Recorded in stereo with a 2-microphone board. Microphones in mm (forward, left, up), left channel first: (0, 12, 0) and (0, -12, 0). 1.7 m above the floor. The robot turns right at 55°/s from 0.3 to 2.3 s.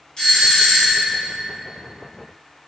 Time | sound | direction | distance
0.2 | a doorbell | 150° left | 1.9 m